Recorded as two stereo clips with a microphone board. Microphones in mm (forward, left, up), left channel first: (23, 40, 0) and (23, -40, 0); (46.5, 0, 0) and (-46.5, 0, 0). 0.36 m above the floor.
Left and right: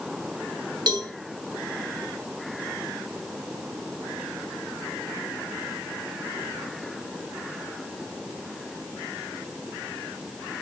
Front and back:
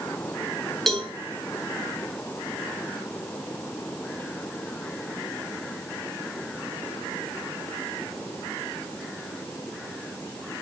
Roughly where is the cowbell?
Right.